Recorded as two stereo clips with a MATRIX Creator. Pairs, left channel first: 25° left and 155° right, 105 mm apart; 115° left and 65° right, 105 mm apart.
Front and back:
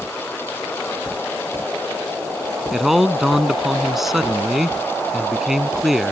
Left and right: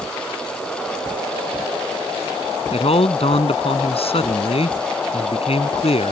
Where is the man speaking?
115° left.